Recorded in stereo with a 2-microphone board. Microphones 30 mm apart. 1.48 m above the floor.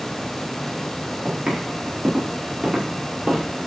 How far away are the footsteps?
About 6 m.